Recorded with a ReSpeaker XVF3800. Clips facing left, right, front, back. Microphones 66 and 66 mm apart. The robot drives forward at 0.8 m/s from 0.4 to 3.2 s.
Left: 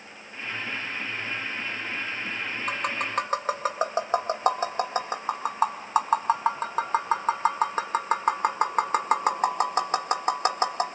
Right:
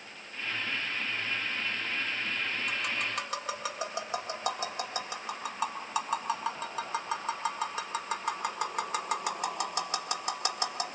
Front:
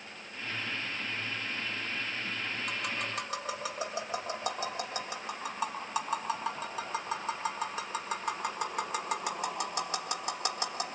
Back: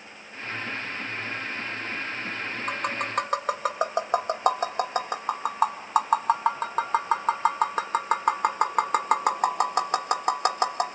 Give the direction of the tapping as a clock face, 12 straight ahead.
8 o'clock.